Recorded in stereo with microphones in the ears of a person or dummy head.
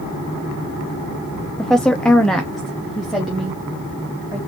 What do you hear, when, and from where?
1.6 s a woman speaking: 5° left (ahead or behind), 0.5 m